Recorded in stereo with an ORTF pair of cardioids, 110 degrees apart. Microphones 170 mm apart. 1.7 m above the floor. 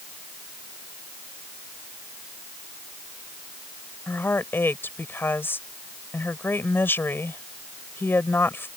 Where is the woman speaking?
10° left.